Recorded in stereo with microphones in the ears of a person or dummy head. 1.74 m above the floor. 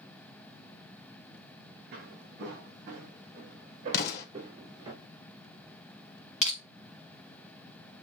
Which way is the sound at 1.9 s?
55° right (ahead or behind).